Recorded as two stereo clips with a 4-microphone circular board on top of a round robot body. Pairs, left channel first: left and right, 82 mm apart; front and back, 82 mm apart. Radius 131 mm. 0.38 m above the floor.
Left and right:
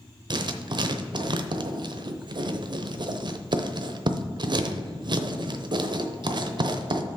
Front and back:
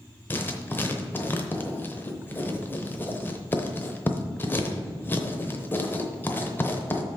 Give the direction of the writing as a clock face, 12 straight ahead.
2 o'clock.